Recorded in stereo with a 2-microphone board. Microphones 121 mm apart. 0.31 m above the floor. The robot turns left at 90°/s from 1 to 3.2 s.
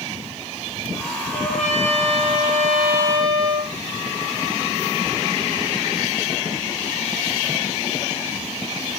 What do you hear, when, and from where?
1.3 s a trumpet: 130° left, 7.5 m; by 3.7 s 40° right, 7.5 m